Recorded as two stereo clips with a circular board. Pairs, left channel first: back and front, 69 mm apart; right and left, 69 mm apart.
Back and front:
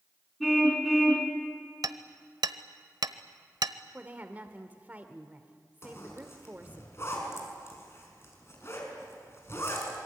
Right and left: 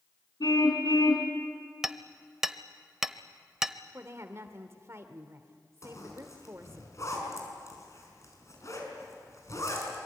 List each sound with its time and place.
0.4 s a car horn: 85° right, 3 m
1.8 s hammering: 5° left, 0.9 m
3.9 s a woman speaking: 60° left, 1.7 m
5.8 s a zipper: 130° right, 5.5 m